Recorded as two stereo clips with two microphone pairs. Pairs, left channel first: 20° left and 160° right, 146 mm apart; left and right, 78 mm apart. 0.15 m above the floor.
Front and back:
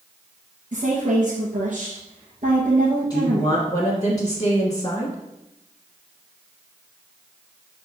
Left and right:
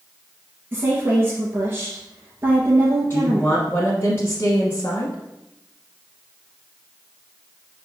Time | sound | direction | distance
0.7 | a woman speaking | 150° right | 2.5 m
3.1 | a woman speaking | 60° left | 1.2 m